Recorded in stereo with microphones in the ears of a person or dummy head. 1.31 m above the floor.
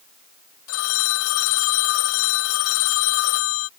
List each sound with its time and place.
0.7 s a phone ringing: 80° left